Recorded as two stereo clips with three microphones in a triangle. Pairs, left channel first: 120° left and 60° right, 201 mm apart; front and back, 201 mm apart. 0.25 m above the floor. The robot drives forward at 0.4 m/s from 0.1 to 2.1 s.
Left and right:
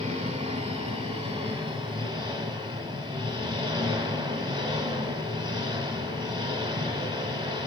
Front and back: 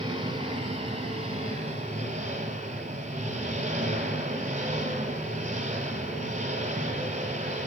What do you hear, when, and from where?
0.0 s an engine running: 115° right, 4 m; by 7.7 s 125° right, 4.5 m